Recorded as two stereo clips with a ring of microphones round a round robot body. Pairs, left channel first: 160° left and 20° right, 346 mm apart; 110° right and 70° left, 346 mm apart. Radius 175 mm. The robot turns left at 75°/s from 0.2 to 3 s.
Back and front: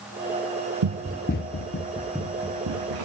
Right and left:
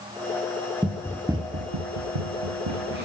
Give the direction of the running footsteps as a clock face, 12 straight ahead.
1 o'clock.